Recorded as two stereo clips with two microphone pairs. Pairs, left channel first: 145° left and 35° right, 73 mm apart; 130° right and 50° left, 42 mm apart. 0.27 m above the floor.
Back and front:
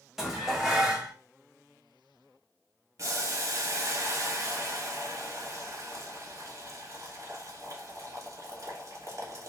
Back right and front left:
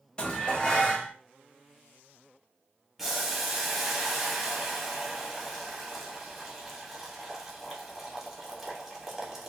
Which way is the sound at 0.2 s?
105° right.